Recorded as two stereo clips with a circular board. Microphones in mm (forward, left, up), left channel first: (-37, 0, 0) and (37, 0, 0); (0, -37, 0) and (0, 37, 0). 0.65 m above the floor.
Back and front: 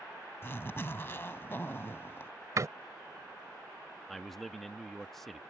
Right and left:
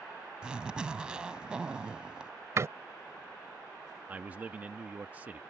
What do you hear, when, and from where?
0.4 s a zipper: 160° left
2.6 s a door slam: 40° left
4.1 s a man speaking: 95° left